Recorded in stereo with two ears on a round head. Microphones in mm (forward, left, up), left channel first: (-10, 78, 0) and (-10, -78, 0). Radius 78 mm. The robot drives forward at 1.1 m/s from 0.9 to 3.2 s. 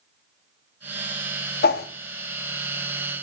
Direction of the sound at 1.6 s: 55° left (ahead or behind).